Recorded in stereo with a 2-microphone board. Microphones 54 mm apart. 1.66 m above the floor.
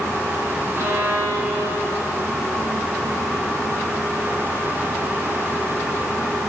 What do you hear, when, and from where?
0.8 s a violin: 70° right (ahead or behind), 4 m